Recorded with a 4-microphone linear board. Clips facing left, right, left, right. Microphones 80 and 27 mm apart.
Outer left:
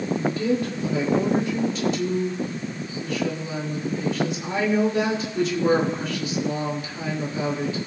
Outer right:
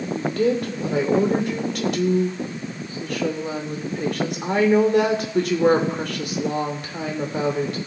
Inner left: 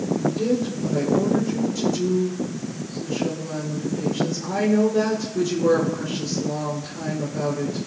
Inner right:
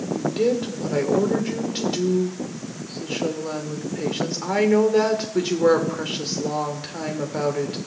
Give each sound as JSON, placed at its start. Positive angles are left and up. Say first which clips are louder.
{"t": 0.1, "sound": "a woman speaking", "louder": "outer right 3 dB, inner right 1 dB", "side_deg": -60, "distance_m": 2.5}